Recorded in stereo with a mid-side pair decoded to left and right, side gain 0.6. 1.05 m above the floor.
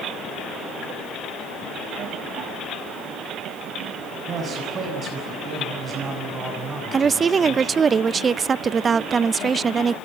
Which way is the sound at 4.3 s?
35° right.